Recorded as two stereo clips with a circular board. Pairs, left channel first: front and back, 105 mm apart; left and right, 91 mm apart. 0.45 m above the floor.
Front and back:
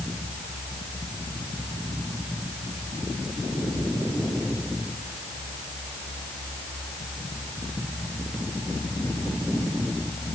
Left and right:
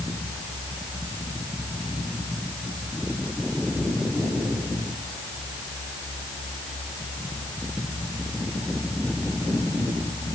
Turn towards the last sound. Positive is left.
No sound to turn to.